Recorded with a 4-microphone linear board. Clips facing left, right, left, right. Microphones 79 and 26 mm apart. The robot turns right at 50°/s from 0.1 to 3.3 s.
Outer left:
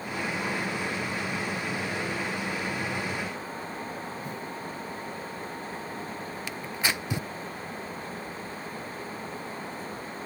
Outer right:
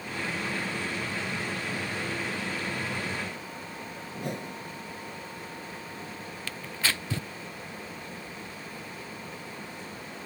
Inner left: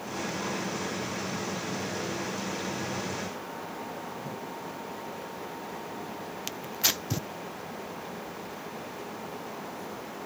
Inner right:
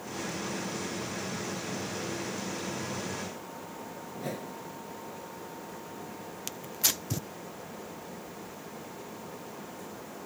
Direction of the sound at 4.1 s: 75° right (ahead or behind).